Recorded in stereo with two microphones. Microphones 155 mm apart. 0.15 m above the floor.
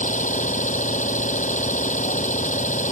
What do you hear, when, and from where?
0.0 s an engine running: 50° left (ahead or behind)